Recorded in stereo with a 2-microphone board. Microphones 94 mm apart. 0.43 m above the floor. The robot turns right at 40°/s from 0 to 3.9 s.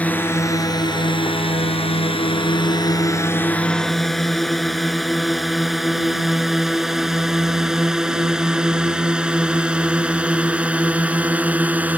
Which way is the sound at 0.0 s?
15° left (ahead or behind).